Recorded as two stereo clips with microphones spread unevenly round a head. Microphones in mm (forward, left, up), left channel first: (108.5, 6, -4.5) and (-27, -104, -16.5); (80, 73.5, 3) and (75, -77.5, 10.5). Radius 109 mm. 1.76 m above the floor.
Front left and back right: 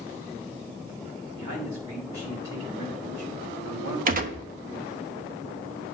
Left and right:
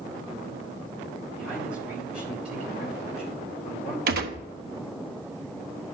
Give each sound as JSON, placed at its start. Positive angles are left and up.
{"t": 1.4, "sound": "a man speaking", "azimuth_deg": 180, "distance_m": 4.0}
{"t": 4.1, "sound": "a gunshot", "azimuth_deg": -105, "distance_m": 1.0}